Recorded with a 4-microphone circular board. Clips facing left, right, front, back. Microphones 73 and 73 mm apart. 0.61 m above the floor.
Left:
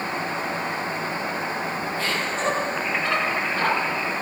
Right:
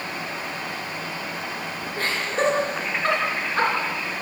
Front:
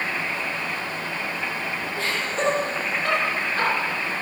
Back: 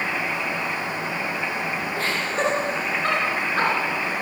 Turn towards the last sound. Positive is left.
turn(degrees=-135)